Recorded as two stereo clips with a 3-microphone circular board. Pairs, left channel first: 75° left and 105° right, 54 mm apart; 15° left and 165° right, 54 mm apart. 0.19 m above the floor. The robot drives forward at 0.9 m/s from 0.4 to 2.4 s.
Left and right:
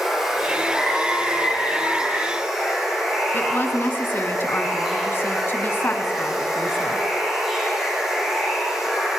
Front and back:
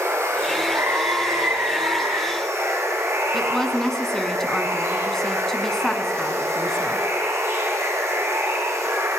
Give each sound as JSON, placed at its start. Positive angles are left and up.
{"t": 0.0, "sound": "running water", "azimuth_deg": 170, "distance_m": 4.0}
{"t": 3.3, "sound": "a woman speaking", "azimuth_deg": 95, "distance_m": 1.7}